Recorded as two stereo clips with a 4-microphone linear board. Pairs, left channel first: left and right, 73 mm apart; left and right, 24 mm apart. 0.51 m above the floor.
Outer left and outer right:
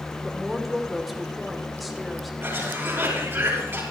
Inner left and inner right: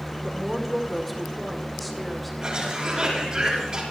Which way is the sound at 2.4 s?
35° right (ahead or behind).